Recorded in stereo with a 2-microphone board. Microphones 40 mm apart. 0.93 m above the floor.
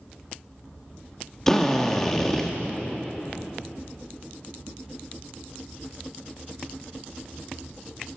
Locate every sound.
1.5 s a drill: 10° left (ahead or behind), 1.3 m